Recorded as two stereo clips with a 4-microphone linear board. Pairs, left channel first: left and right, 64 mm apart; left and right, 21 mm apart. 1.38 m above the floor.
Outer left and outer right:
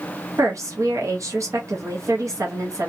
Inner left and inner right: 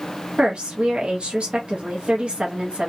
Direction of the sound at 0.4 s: 55° right (ahead or behind).